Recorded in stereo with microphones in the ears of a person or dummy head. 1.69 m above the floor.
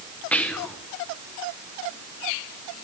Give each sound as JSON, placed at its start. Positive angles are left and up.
{"t": 0.3, "sound": "whispering", "side_deg": 10, "distance_m": 1.2}